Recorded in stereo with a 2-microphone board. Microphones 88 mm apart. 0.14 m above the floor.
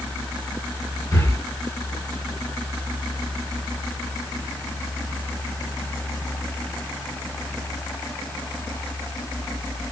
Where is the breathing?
35° left (ahead or behind), 1.9 m.